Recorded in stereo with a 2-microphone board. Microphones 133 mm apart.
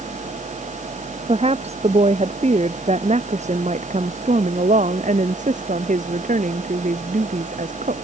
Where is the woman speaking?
45° right (ahead or behind); by 7.9 s 65° right (ahead or behind).